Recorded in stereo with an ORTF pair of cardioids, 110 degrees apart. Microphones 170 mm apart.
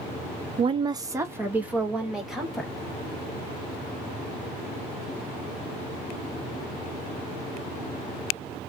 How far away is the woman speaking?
About 0.7 m.